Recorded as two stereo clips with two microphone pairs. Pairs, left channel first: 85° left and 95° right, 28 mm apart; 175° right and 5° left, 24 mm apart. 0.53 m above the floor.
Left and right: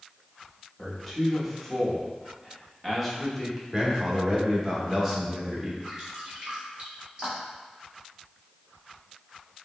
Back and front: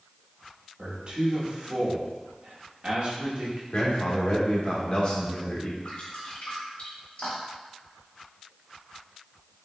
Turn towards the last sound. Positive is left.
turn(degrees=-140)